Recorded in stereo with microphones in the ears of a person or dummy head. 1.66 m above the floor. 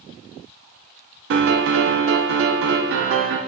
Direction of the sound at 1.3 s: 65° right (ahead or behind).